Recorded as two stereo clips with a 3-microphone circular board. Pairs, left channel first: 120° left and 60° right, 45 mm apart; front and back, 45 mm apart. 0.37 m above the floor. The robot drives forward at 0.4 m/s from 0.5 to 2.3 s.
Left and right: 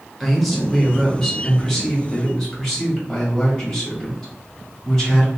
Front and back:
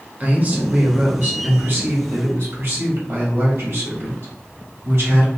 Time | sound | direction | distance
0.2 | a man speaking | 150° right | 1.0 m